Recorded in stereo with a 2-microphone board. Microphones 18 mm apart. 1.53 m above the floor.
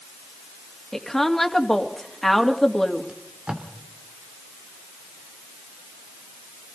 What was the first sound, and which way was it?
A woman speaking, 20° left (ahead or behind).